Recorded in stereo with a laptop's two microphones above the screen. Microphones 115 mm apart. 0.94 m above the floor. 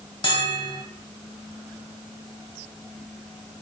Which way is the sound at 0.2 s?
45° left (ahead or behind).